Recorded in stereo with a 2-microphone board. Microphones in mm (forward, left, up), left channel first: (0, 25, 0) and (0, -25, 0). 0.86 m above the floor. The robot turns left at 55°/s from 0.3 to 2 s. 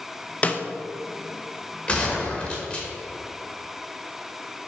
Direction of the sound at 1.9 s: 20° left (ahead or behind).